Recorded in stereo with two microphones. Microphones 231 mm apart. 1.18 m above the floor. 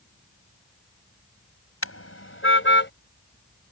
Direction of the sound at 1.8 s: 75° left (ahead or behind).